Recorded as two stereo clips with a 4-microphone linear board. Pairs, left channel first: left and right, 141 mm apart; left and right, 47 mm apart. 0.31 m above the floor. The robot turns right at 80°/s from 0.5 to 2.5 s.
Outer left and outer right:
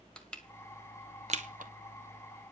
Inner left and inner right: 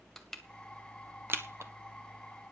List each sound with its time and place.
0.2 s crushing: 5° left (ahead or behind), 1.4 m; by 1.7 s 85° right, 1.4 m